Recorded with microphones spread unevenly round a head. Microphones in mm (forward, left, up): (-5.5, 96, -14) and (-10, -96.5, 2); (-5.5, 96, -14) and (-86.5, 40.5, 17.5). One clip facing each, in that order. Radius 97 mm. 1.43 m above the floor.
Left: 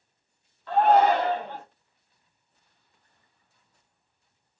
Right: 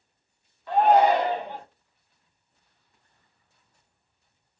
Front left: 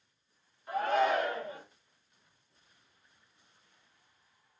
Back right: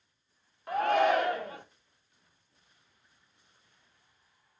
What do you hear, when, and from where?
0.7 s a shout: 170° right, 1.0 m